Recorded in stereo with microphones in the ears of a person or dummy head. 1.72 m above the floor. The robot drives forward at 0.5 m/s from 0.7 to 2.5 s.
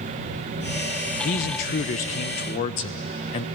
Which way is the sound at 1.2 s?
45° left (ahead or behind).